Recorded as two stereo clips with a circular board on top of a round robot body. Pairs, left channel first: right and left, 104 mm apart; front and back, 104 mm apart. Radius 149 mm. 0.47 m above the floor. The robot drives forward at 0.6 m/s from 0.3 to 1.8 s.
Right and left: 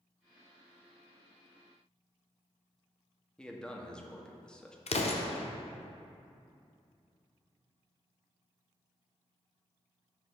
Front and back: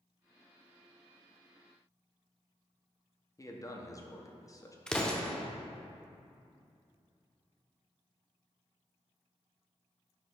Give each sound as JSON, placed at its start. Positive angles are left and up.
{"t": 3.4, "sound": "a man speaking", "azimuth_deg": -15, "distance_m": 1.1}
{"t": 4.9, "sound": "an explosion", "azimuth_deg": -85, "distance_m": 0.8}